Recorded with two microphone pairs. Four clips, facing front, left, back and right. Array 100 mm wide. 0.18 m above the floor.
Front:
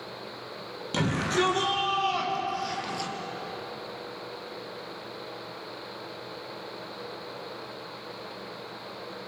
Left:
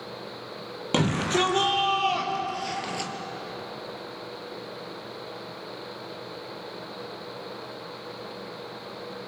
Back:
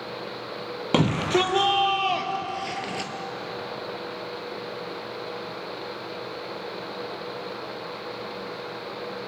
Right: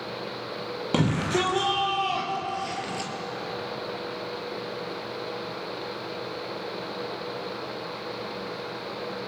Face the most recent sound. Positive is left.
turn(degrees=170)